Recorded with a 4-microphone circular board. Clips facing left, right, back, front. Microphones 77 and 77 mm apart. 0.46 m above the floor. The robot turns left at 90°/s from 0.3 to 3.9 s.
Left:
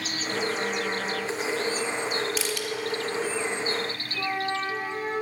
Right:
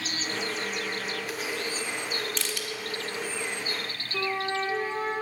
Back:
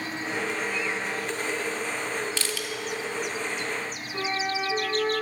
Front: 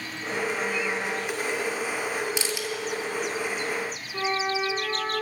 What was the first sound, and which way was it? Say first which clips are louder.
Crushing: left 4 dB, front 2 dB; 20° left.